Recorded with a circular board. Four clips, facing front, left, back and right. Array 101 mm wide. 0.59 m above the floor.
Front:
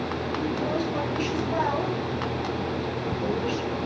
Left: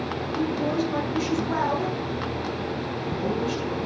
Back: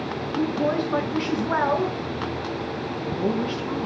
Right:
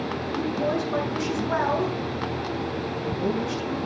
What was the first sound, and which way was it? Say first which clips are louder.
A woman speaking: left 1 dB, back 5 dB; 165° right.